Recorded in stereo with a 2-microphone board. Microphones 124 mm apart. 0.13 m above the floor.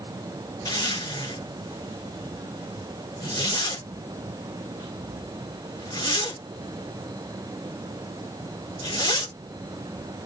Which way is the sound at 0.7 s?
30° left (ahead or behind).